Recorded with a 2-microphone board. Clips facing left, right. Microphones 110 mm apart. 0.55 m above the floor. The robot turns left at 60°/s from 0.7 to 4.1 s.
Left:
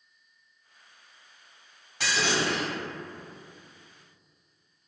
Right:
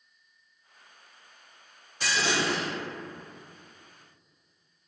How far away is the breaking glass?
About 1.8 m.